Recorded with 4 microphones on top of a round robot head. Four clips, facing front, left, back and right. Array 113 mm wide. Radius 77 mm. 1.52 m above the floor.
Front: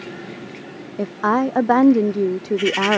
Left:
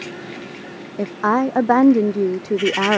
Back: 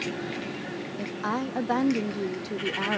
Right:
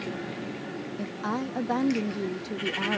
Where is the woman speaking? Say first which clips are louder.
Left 14 dB, front 12 dB; 50° left.